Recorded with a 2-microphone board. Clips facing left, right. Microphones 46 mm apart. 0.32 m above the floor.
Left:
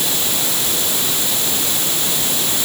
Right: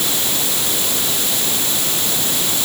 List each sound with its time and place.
Only background noise.